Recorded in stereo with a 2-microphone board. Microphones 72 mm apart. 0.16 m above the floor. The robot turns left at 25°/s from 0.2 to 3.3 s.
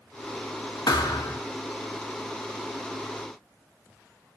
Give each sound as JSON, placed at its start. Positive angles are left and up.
{"t": 0.9, "sound": "a thud", "side_deg": 70, "distance_m": 1.1}